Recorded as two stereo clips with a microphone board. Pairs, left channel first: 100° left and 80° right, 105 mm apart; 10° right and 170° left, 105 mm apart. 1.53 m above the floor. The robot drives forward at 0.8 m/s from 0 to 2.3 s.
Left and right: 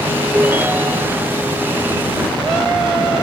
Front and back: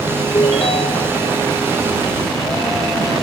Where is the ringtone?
10° right.